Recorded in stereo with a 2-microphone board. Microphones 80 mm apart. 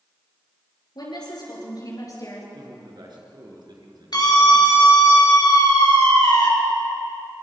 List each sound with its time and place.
0.9 s a woman speaking: 60° left (ahead or behind), 6.5 m; by 2.4 s 40° left (ahead or behind), 5.5 m
2.5 s a man speaking: 60° right (ahead or behind), 4.5 m
4.1 s a scream: 55° left (ahead or behind), 5 m